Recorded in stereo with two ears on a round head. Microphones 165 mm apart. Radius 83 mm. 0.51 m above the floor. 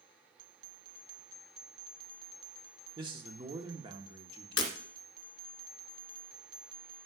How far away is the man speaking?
About 1.1 m.